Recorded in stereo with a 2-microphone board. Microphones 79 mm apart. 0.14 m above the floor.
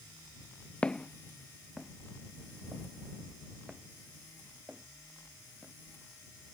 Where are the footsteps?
15° left (ahead or behind); by 5.7 s 15° right (ahead or behind).